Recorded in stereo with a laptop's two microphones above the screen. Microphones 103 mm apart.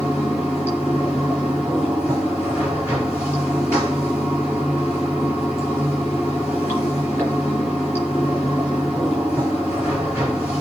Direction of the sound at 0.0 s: 25° left (ahead or behind).